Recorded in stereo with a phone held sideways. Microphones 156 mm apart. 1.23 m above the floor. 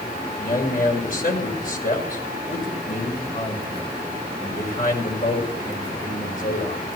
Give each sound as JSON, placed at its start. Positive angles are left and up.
{"t": 0.4, "sound": "a man speaking", "side_deg": 60, "distance_m": 5.5}